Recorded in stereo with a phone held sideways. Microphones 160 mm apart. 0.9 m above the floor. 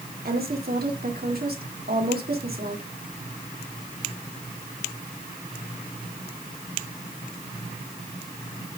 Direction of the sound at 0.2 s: 70° right (ahead or behind).